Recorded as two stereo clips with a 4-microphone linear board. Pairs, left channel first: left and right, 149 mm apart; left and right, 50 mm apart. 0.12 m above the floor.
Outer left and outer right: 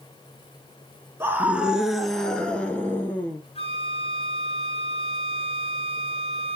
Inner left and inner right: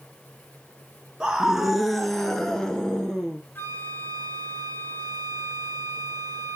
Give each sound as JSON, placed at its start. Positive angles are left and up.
{"t": 1.2, "sound": "a scream", "side_deg": -15, "distance_m": 1.4}
{"t": 3.5, "sound": "a flute", "side_deg": 40, "distance_m": 1.9}